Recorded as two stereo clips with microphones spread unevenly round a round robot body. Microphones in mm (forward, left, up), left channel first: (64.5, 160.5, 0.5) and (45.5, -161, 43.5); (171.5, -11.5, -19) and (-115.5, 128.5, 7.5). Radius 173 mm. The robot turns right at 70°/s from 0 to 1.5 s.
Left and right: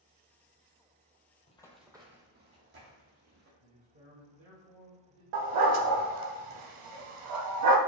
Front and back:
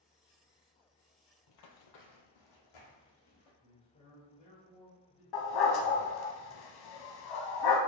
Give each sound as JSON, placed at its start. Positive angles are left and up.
{"t": 1.5, "sound": "running footsteps", "azimuth_deg": 10, "distance_m": 0.7}
{"t": 3.6, "sound": "a man speaking", "azimuth_deg": -70, "distance_m": 1.2}
{"t": 5.3, "sound": "a dog barking", "azimuth_deg": -60, "distance_m": 0.5}